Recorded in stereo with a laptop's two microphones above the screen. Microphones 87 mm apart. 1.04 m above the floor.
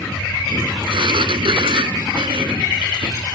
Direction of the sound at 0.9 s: 70° right (ahead or behind).